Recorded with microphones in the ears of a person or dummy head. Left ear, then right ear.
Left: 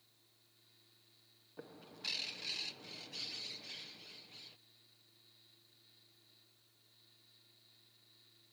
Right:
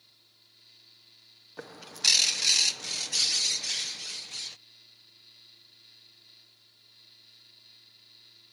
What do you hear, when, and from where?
0.0 s a fan: 75° right (ahead or behind)
1.6 s a bird: 65° right (ahead or behind)